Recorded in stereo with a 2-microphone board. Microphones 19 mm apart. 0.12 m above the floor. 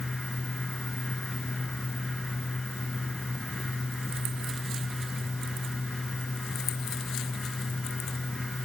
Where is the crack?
No crack in this recording.